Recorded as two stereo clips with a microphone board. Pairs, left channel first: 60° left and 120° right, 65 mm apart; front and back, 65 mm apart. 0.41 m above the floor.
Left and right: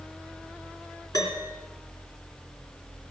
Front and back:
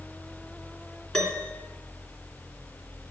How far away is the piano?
About 3.5 m.